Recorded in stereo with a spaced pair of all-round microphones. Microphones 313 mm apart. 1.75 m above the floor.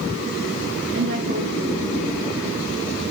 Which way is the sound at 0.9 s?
40° right (ahead or behind).